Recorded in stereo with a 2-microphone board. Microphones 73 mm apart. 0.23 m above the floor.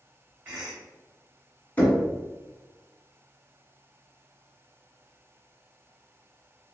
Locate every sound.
0.5 s a cough: 15° right (ahead or behind), 1.2 m
1.8 s knocking: 20° left (ahead or behind), 1.2 m